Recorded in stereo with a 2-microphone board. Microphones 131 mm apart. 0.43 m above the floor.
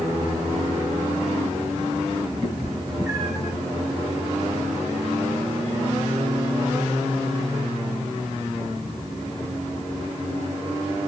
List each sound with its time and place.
2.4 s a cat meowing: 35° right (ahead or behind), 3 m; by 3.5 s 20° right (ahead or behind), 2.5 m